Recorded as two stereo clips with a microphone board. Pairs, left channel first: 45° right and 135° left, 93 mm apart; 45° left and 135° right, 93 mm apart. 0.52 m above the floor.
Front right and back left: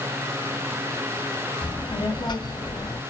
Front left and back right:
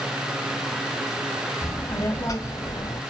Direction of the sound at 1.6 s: 15° right.